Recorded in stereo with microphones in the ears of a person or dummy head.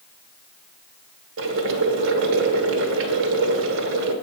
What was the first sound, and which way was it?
Boiling, 65° right (ahead or behind).